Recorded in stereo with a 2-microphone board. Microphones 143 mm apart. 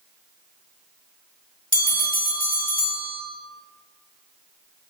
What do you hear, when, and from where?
1.7 s a bell: 70° left (ahead or behind), 2.0 m